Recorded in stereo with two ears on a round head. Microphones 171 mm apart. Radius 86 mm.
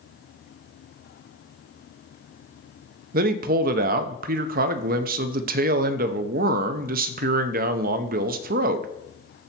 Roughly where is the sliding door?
No sliding door in this recording.